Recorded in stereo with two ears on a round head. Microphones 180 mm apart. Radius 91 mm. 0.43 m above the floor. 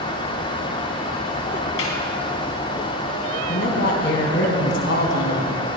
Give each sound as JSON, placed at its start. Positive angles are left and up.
{"t": 1.8, "sound": "a snare drum", "side_deg": 75, "distance_m": 3.0}
{"t": 3.5, "sound": "a woman speaking", "side_deg": 55, "distance_m": 3.5}